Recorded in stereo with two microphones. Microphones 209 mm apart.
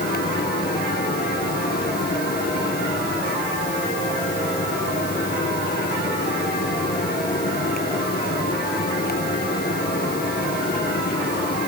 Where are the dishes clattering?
No dishes clattering in this recording.